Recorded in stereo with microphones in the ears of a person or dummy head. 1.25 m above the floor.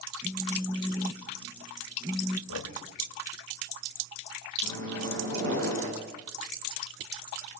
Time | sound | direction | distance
0.2 | a phone buzzing | 10° right (ahead or behind) | 1.5 m
2.5 | knocking | 85° left | 1.9 m
4.6 | a microwave | 70° right (ahead or behind) | 7 m